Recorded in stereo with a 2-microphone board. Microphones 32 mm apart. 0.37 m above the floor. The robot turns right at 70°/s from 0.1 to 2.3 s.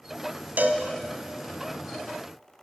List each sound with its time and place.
0.6 s a cowbell: 70° right (ahead or behind), 0.8 m; by 0.8 s 85° right, 0.8 m